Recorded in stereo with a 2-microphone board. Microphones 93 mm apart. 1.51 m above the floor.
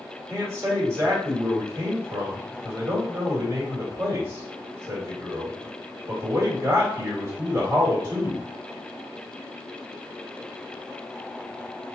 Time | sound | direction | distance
0.3 | a man speaking | 30° right (ahead or behind) | 2.5 m